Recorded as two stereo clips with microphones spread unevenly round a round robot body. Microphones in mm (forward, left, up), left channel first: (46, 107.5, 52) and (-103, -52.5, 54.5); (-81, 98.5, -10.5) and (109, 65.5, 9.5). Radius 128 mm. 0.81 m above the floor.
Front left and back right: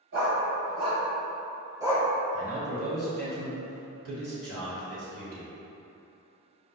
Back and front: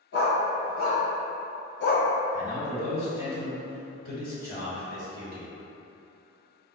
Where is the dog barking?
165° right, 1.3 m; by 2.1 s 145° left, 0.7 m.